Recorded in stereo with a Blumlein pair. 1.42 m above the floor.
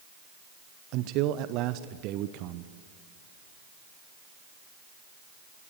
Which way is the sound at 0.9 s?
40° right.